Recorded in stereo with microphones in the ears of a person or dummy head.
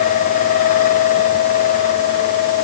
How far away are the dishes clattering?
No dishes clattering in this recording.